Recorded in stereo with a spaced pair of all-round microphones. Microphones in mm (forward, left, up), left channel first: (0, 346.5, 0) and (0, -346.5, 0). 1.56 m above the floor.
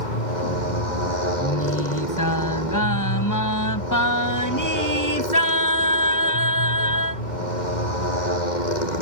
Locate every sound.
0.0 s a motorcycle: 80° left
1.4 s singing: 25° left (ahead or behind)